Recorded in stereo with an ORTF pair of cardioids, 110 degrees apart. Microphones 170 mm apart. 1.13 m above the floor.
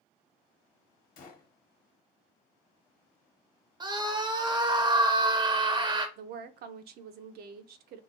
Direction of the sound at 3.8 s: 25° right.